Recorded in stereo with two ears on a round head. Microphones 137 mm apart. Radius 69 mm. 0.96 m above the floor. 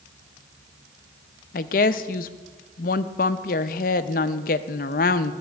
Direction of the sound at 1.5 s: 55° left (ahead or behind).